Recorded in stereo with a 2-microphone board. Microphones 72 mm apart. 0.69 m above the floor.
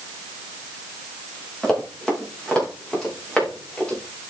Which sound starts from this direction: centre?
Running footsteps, at 1.6 s.